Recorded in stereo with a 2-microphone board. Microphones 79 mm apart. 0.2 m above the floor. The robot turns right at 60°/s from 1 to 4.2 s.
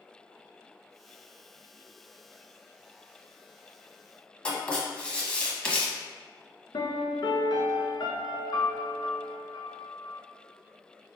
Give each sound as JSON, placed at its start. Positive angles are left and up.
{"t": 4.5, "sound": "writing", "side_deg": 15, "distance_m": 0.7}
{"t": 6.7, "sound": "a piano", "side_deg": 75, "distance_m": 0.5}